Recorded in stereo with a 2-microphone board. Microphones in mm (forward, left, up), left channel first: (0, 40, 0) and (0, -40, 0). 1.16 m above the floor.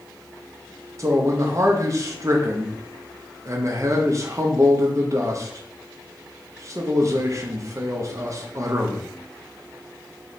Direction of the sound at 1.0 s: 40° right (ahead or behind).